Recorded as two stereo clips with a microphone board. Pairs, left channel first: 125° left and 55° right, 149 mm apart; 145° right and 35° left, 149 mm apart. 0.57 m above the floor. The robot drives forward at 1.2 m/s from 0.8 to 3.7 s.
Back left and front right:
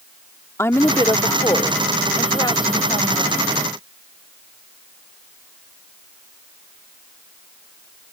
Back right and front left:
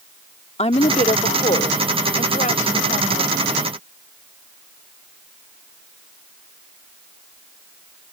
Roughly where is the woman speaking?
Behind.